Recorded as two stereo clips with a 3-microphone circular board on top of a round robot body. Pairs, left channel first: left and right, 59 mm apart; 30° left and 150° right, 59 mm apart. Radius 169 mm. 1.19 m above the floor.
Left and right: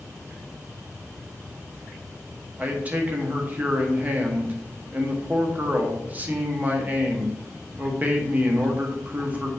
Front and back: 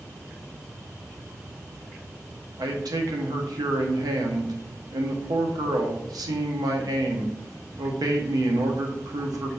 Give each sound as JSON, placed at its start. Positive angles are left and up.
{"t": 2.6, "sound": "a man speaking", "azimuth_deg": -155, "distance_m": 0.8}